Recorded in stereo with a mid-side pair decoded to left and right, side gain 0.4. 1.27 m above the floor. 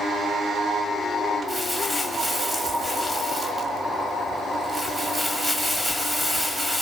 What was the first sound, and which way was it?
Crumpling, 5° right.